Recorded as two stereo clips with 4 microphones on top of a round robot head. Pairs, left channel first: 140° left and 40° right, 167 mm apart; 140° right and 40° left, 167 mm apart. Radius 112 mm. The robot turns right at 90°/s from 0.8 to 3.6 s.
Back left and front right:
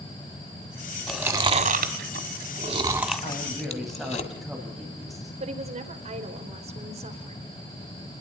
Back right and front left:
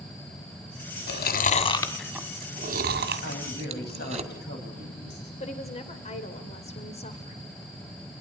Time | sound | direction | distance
1.1 | chewing | 135° right | 1.8 m
3.2 | a woman speaking | 165° right | 6 m
5.4 | a woman speaking | 90° right | 3 m